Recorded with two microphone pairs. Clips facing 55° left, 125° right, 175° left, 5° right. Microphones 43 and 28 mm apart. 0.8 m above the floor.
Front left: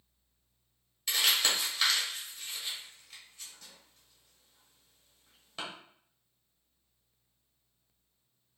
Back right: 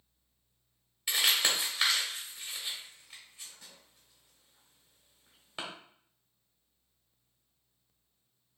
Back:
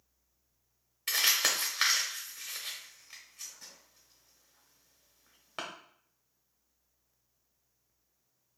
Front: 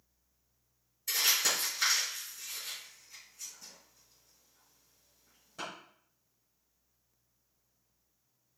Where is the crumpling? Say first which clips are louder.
Even, back 2 dB; 165° left, 1.3 m.